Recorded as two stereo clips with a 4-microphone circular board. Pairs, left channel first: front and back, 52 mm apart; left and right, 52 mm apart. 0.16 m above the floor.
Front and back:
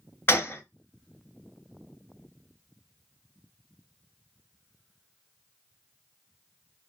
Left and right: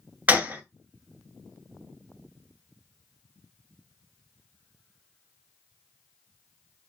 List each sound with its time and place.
0.3 s a gunshot: 35° right, 1.2 m